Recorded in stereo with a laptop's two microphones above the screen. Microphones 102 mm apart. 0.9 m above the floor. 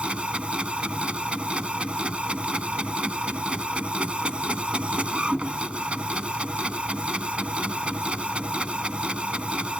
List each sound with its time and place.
0.0 s a machine running: 10° right (ahead or behind)